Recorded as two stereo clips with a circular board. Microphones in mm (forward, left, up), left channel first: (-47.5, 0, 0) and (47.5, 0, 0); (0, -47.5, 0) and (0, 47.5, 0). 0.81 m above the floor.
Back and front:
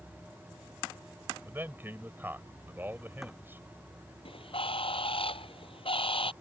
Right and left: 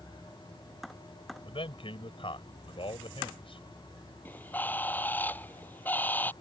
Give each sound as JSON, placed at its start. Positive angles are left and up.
{"t": 1.4, "sound": "a man speaking", "azimuth_deg": -70}
{"t": 4.2, "sound": "a bird", "azimuth_deg": -160}